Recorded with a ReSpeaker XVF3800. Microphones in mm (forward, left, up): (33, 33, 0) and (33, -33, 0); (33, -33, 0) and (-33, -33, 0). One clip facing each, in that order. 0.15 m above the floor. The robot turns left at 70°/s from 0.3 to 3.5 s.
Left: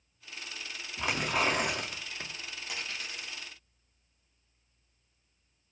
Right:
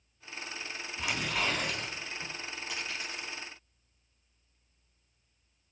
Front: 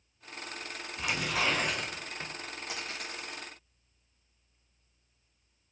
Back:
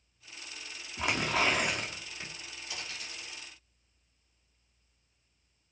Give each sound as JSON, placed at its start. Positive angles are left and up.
{"t": 1.0, "sound": "tearing paper", "azimuth_deg": 145, "distance_m": 2.5}
{"t": 2.7, "sound": "a dropped coin", "azimuth_deg": 5, "distance_m": 4.5}